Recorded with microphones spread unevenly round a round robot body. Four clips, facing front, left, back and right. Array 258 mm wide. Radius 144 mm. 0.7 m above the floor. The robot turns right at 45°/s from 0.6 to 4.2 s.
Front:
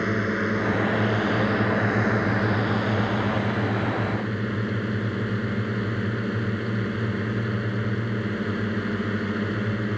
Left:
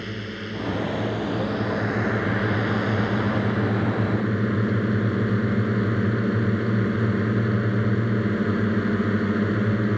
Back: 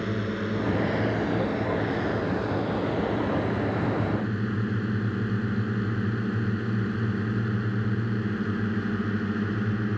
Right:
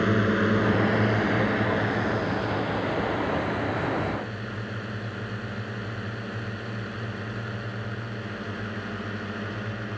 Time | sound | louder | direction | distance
0.0 | a drone | right 10 dB, front 4 dB | 55° right | ?